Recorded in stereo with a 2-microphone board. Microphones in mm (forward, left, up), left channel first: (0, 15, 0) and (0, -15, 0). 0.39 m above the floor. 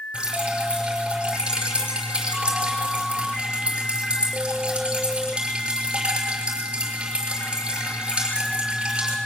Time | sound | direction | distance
0.1 | dripping | 30° right (ahead or behind) | 6.5 m